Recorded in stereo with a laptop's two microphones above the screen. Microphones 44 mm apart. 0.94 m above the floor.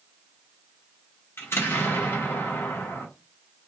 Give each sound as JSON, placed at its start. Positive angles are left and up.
{"t": 1.4, "sound": "an explosion", "side_deg": 65, "distance_m": 1.1}